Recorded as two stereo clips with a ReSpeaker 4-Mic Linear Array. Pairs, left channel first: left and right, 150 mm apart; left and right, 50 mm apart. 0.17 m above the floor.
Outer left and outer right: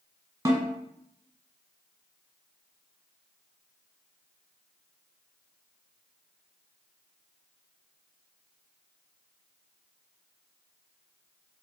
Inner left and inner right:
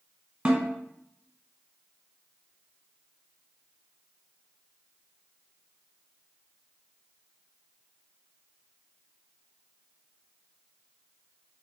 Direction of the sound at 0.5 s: 25° right (ahead or behind).